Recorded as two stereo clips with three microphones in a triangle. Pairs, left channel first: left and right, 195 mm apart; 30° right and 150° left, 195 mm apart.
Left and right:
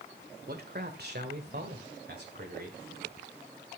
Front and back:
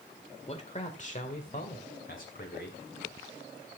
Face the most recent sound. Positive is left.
turn(degrees=-65)